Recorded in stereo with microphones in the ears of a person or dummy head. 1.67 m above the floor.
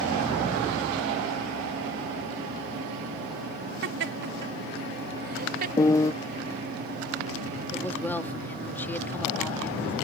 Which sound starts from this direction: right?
Laughter, at 3.8 s.